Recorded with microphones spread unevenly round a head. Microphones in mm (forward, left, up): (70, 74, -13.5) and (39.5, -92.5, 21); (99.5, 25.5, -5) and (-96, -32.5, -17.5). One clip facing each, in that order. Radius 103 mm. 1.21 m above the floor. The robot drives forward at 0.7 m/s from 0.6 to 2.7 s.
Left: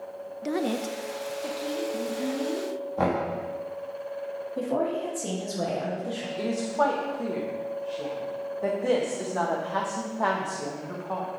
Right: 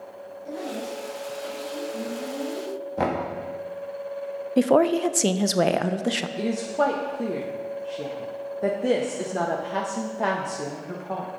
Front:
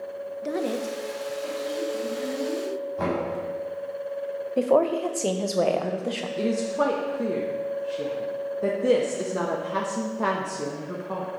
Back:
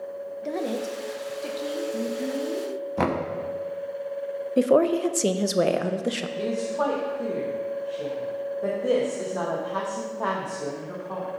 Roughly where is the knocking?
Behind.